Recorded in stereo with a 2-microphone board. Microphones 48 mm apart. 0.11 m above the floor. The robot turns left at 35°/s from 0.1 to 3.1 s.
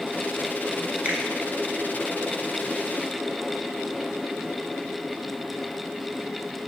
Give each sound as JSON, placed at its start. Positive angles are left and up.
{"t": 1.1, "sound": "a finger snap", "side_deg": -25, "distance_m": 1.0}